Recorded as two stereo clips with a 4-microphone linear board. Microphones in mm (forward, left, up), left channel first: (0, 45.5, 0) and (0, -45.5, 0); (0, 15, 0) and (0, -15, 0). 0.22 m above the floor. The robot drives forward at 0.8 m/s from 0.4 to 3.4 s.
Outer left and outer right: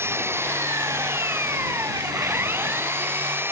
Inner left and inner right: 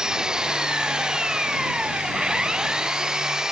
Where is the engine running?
25° right (ahead or behind).